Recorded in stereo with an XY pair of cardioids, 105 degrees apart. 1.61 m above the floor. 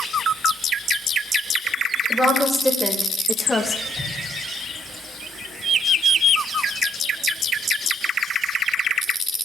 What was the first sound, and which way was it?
A woman speaking, straight ahead.